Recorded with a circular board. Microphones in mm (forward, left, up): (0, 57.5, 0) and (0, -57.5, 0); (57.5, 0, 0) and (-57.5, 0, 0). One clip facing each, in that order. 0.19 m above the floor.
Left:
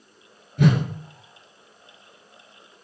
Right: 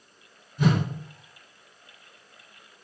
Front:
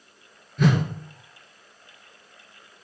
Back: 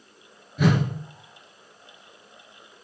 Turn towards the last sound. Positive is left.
turn(degrees=95)